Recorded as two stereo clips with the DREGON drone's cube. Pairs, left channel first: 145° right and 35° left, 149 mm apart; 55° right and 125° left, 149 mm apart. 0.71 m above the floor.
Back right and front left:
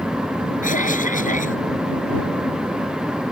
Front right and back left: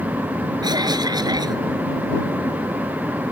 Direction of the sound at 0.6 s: 175° right.